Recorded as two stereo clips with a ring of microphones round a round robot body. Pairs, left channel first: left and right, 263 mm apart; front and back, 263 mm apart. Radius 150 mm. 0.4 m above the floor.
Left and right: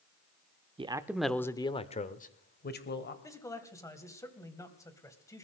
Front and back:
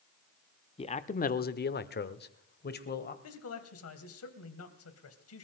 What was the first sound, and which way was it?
A man speaking, 45° right.